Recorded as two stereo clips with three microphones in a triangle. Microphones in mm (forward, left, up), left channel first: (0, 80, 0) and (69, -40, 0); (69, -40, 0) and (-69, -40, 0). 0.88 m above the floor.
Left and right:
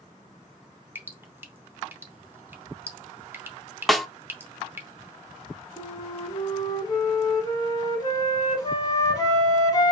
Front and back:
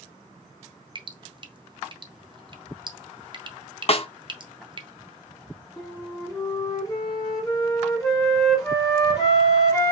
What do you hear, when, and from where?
0.9 s dripping: 130° right, 0.7 m
3.9 s a snare drum: 30° left, 0.6 m
5.8 s a flute: 60° left, 1.5 m